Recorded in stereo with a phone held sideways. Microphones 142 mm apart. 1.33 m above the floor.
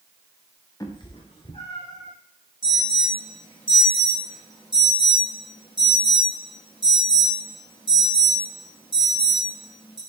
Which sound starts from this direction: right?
An alarm, at 2.6 s.